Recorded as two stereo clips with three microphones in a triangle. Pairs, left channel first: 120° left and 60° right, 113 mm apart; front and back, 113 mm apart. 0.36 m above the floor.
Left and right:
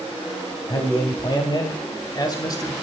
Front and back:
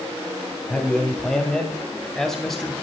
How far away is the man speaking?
About 2.5 m.